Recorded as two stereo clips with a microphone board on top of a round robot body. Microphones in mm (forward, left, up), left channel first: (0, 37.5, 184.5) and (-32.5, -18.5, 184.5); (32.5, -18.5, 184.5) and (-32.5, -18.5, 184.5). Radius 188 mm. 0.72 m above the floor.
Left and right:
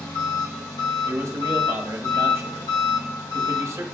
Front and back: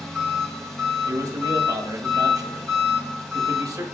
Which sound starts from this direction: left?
An engine running, at 0.0 s.